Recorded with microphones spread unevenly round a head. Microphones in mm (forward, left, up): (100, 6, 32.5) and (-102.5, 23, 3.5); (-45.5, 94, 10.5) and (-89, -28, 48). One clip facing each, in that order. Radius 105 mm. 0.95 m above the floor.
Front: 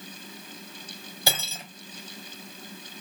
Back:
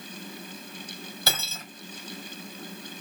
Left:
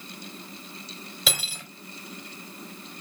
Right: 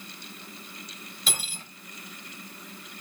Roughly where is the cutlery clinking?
Left.